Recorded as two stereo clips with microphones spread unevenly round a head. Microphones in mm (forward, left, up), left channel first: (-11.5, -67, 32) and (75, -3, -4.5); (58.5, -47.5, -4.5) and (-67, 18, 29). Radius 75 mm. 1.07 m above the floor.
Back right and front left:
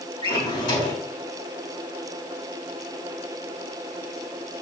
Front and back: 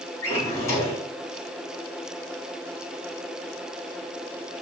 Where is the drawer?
100° right, 3.5 m.